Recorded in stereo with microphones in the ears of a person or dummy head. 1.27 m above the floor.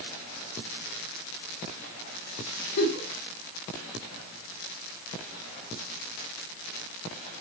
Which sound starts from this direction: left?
A giggle, at 2.8 s.